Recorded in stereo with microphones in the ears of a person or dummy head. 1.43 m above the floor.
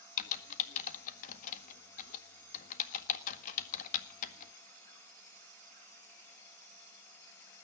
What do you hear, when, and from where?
0.2 s typing on a keyboard: 45° left (ahead or behind), 1.6 m